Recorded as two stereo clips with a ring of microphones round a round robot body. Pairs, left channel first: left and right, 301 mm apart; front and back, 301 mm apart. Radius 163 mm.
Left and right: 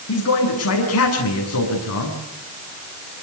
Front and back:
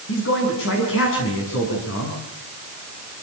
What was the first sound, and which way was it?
A man speaking, 55° left.